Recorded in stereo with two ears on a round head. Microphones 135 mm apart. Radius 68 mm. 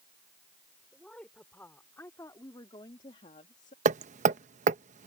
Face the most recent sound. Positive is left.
turn(degrees=-50)  # may be behind; listen again after turning